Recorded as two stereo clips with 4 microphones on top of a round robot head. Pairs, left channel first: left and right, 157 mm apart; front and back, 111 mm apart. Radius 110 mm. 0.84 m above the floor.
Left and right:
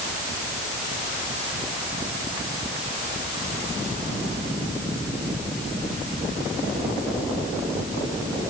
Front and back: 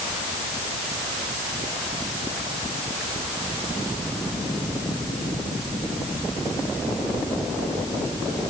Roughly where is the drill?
No drill in this recording.